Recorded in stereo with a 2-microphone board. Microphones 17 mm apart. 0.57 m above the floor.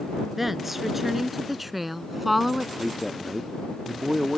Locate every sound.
0.4 s a woman speaking: 15° right (ahead or behind); by 2.7 s 10° right (ahead or behind)
2.8 s a man speaking: 10° right (ahead or behind)